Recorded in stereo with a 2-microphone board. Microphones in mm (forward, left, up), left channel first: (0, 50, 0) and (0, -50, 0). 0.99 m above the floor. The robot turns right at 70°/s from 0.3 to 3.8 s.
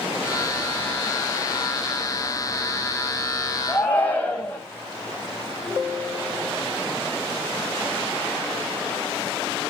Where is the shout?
5° left (ahead or behind), 6.5 m; by 4.6 s 15° left (ahead or behind), 6.5 m.